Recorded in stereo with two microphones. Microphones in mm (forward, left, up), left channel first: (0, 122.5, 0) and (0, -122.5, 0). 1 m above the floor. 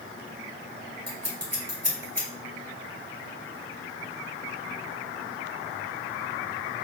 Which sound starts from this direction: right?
Scissors, at 1.1 s.